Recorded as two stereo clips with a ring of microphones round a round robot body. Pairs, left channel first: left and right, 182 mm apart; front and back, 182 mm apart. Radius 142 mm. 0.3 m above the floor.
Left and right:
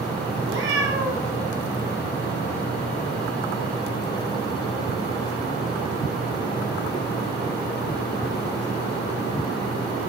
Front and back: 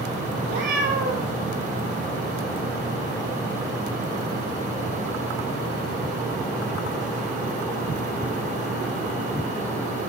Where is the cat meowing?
125° right, 2.5 m.